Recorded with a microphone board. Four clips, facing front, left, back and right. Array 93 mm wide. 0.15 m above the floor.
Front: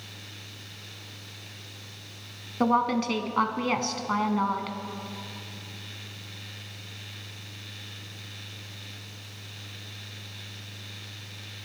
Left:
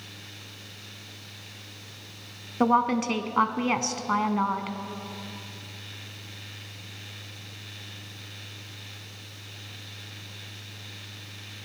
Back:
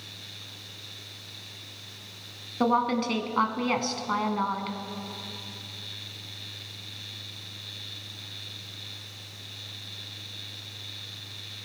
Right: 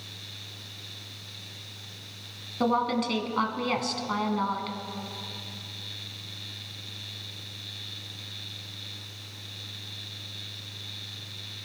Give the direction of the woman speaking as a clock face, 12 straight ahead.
9 o'clock.